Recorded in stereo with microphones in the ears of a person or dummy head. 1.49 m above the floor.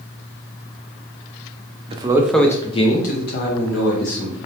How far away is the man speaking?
About 0.6 m.